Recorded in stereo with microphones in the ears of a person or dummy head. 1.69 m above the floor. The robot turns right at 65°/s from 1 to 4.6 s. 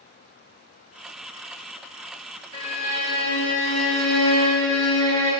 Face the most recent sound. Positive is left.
turn(degrees=160)